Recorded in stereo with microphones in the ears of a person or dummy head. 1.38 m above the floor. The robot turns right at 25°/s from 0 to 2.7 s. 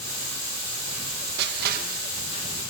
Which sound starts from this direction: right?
Crushing, at 1.4 s.